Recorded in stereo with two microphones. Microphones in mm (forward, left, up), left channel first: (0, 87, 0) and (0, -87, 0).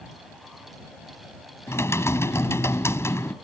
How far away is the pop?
No pop in this recording.